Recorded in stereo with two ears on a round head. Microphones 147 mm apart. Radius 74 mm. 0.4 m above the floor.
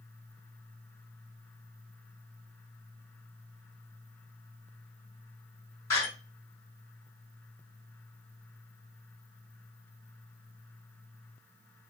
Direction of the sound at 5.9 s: 20° left (ahead or behind).